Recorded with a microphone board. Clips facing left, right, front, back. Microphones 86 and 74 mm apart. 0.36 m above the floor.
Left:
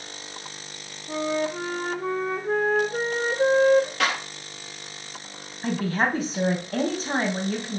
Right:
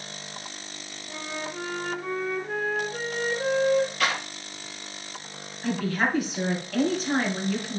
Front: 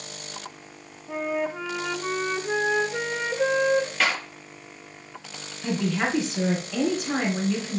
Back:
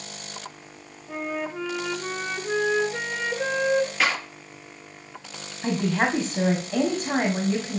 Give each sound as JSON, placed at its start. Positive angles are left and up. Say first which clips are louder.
{"t": 1.1, "sound": "a flute", "louder": "left 10 dB, front 3 dB", "azimuth_deg": 75, "distance_m": 1.0}
{"t": 4.0, "sound": "a clap", "louder": "left 1 dB, back 1 dB", "azimuth_deg": 90, "distance_m": 6.0}
{"t": 5.6, "sound": "a woman speaking", "louder": "left 2 dB, back 2 dB", "azimuth_deg": 140, "distance_m": 2.5}